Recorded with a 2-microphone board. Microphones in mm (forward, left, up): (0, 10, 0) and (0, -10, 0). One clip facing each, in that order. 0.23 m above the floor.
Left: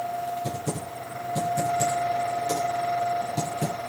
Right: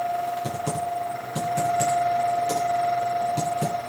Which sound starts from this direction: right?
Typing on a keyboard, at 0.4 s.